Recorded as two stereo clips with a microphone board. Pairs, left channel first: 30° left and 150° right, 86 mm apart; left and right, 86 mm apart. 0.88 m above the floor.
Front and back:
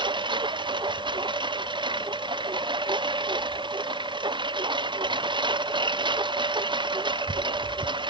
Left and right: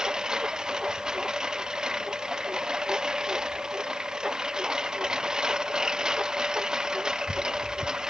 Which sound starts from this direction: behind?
A lawn mower, at 0.0 s.